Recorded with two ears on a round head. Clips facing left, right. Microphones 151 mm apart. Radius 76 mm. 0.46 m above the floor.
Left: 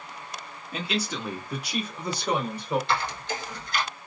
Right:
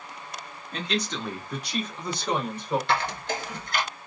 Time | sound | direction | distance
0.7 | a man speaking | 5° left (ahead or behind) | 0.7 m
2.9 | a squeak | 45° right (ahead or behind) | 1.1 m